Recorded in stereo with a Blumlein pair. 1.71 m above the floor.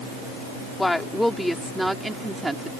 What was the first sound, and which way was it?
A woman speaking, 5° left.